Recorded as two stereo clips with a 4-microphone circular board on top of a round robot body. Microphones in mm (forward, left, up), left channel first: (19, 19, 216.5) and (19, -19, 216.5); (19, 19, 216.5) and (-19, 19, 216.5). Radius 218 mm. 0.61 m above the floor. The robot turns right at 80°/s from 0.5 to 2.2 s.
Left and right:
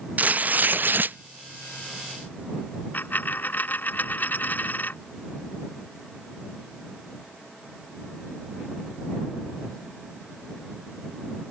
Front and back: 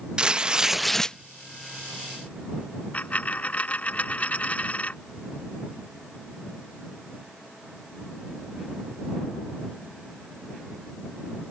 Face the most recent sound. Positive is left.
turn(degrees=50)